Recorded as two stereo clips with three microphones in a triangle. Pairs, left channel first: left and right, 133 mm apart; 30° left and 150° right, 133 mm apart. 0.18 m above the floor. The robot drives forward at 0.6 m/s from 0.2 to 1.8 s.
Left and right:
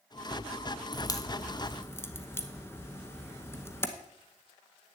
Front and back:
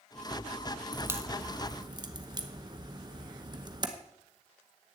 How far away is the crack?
About 0.7 m.